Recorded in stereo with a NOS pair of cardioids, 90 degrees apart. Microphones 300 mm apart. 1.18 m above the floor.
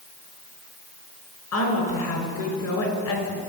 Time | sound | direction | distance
1.5 | a woman speaking | 60° left | 5.5 m